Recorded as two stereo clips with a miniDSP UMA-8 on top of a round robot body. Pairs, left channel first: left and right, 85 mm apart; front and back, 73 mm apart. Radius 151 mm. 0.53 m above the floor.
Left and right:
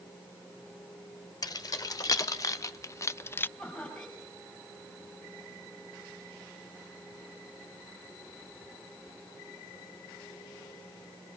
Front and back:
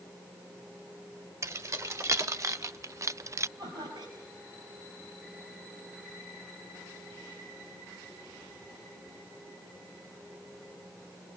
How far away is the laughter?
About 5.5 m.